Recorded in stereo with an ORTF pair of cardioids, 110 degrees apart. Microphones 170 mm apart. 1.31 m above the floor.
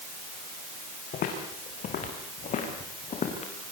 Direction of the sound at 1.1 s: 60° left.